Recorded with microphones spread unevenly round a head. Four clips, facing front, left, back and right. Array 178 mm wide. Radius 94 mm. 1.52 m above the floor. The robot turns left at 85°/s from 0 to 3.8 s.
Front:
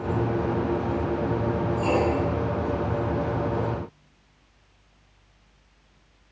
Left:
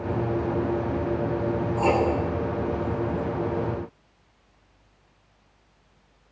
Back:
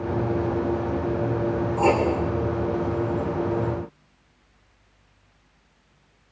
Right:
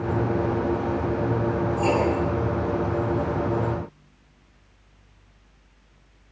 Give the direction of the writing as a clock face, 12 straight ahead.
6 o'clock.